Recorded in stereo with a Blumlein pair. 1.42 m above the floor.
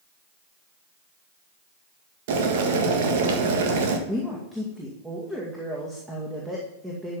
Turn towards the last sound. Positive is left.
turn(degrees=-10)